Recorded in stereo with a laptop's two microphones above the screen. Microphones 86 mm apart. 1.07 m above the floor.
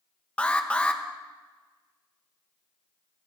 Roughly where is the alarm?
Centre.